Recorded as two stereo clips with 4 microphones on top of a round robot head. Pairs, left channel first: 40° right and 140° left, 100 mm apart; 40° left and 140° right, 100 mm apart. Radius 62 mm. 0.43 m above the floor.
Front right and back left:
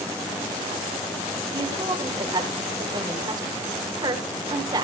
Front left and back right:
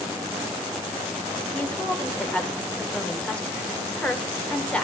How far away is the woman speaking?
About 1.8 m.